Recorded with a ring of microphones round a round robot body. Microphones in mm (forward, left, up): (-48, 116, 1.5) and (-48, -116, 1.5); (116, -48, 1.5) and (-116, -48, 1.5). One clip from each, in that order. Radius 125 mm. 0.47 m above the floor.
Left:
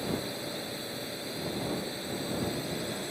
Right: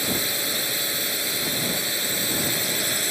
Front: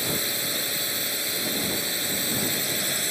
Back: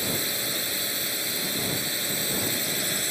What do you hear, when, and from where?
0.0 s a drone: 90° right